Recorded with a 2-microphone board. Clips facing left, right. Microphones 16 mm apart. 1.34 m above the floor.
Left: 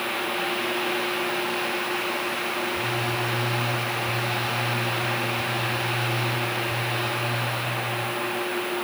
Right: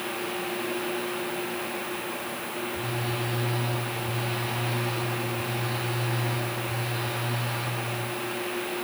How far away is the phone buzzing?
About 6 m.